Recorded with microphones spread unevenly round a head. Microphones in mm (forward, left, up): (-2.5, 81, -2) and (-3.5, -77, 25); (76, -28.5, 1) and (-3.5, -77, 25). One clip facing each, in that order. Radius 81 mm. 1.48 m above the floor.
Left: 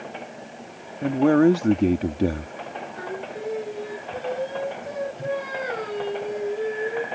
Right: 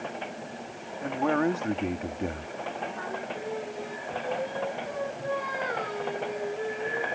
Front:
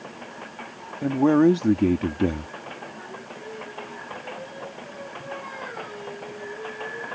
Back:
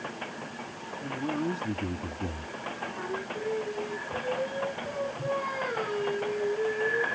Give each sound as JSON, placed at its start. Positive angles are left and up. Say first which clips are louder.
{"t": 1.0, "sound": "a man speaking", "louder": "left 9 dB, front 14 dB", "azimuth_deg": 45}
{"t": 3.0, "sound": "singing", "louder": "left 3 dB, back 5 dB", "azimuth_deg": 150}